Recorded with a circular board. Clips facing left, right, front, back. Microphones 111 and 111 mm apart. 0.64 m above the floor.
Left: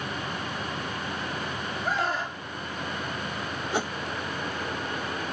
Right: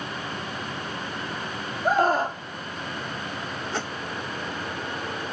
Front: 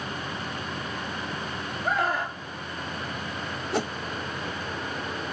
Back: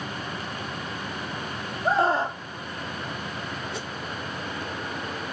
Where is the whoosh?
15° left.